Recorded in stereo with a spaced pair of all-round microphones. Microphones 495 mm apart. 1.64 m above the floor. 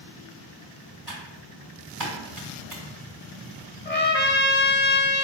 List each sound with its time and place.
1.1 s typing on a keyboard: 60° right (ahead or behind), 1.1 m
3.9 s a trumpet: 20° left (ahead or behind), 0.8 m